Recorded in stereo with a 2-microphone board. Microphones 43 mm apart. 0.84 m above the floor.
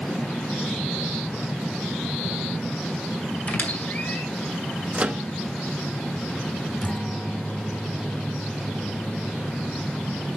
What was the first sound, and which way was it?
A squeak, 35° left (ahead or behind).